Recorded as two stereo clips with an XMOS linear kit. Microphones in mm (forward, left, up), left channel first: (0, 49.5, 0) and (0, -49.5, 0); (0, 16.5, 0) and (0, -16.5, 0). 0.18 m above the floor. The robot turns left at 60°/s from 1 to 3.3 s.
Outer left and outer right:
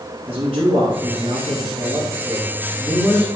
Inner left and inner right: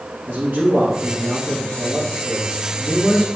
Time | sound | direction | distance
0.3 | a man speaking | 75° right | 4 m